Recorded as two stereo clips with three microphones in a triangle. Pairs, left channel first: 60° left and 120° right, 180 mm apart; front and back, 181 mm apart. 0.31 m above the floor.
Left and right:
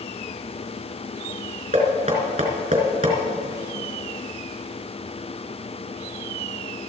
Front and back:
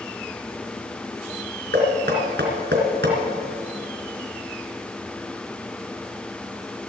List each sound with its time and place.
1.7 s knocking: straight behind, 3 m